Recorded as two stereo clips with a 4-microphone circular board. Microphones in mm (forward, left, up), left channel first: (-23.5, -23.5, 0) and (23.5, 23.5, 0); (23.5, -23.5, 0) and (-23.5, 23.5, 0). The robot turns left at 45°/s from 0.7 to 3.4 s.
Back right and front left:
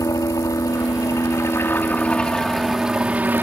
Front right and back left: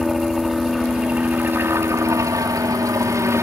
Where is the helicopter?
135° right; by 3.4 s 100° left.